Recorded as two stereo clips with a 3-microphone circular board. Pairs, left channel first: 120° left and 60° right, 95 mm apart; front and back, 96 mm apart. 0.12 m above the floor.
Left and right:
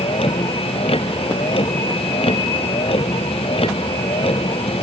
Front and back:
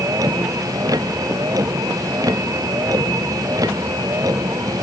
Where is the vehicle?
130° left.